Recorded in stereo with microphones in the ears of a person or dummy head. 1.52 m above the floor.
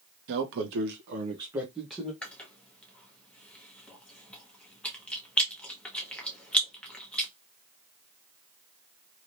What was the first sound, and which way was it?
A man speaking, 60° right (ahead or behind).